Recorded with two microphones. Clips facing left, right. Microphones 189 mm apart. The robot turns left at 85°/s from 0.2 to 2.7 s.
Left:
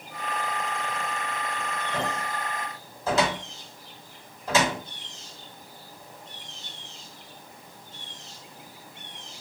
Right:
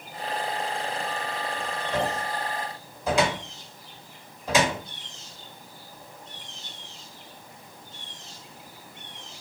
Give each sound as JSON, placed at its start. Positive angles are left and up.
{"t": 1.9, "sound": "a cupboard door", "side_deg": -70, "distance_m": 1.5}